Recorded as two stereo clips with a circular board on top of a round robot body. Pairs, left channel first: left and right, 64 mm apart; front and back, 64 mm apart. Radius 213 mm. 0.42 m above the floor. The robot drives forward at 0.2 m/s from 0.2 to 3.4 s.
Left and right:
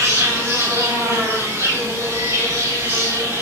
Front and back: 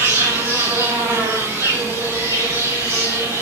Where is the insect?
130° right, 6 m; by 3.4 s 135° right, 6.5 m.